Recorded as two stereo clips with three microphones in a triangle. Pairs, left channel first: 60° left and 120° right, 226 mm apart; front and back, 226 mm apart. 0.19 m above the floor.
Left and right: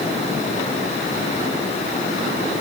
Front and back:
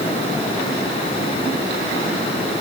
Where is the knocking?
I don't hear knocking.